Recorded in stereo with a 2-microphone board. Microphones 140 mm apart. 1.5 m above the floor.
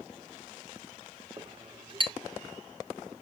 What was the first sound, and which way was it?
A clink, 35° right (ahead or behind).